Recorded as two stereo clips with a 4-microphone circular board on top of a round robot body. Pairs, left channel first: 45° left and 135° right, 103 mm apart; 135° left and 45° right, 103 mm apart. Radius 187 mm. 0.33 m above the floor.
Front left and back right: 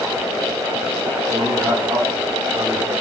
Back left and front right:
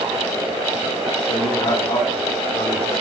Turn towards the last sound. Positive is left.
turn(degrees=170)